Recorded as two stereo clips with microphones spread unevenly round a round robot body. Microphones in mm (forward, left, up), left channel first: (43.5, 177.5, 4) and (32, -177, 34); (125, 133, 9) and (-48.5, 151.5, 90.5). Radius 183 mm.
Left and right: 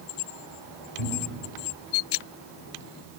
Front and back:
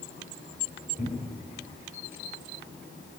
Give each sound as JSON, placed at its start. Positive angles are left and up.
{"t": 1.0, "sound": "a cupboard door", "azimuth_deg": -95, "distance_m": 3.5}